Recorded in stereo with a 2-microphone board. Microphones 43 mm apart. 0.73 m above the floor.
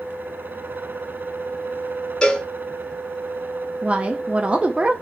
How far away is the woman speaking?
About 0.5 m.